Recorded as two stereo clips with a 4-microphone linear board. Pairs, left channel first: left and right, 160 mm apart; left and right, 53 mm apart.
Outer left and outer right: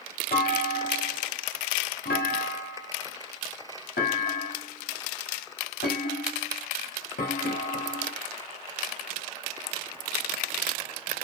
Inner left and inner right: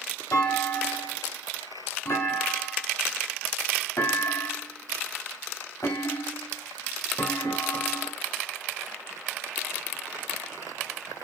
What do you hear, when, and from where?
0.3 s a clunk: 85° left, 0.7 m